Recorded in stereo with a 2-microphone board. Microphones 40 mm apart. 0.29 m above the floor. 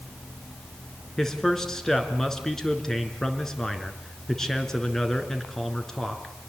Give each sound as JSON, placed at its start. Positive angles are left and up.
{"t": 1.2, "sound": "a man speaking", "side_deg": 10, "distance_m": 3.0}